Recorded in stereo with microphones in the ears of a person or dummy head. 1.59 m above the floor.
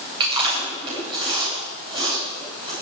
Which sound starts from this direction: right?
Chewing, at 0.2 s.